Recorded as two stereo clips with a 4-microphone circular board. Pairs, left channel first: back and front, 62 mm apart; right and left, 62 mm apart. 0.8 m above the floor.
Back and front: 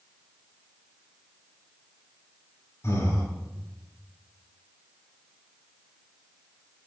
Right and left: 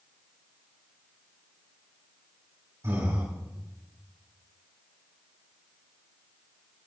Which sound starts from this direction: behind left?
Breathing, at 2.8 s.